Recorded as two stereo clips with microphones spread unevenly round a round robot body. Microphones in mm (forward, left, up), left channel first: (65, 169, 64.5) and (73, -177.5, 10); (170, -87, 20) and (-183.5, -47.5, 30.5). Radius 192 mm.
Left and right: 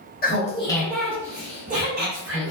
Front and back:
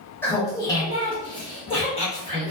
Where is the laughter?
60° left, 0.9 m; by 2.5 s 75° right, 1.3 m.